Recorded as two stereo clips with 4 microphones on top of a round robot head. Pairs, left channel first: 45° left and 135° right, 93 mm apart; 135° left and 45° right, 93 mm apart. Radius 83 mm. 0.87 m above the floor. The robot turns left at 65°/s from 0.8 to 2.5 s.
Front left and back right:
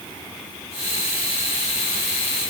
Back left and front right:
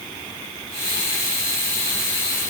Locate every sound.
Only background noise.